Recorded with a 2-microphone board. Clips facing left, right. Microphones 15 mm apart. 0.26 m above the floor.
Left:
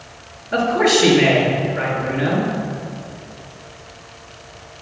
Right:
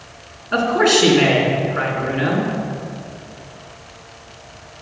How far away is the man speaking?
About 2.5 m.